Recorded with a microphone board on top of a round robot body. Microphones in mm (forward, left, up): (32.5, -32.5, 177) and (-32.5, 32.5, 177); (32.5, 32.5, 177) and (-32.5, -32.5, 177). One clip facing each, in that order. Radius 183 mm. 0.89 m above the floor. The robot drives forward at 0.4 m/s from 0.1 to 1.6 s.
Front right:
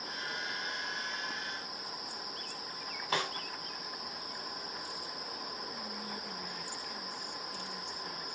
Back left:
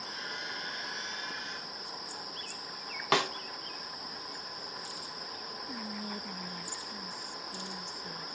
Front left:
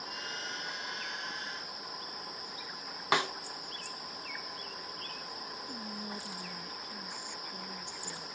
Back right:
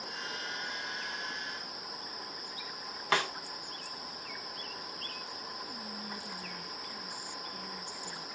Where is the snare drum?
120° left, 0.7 m.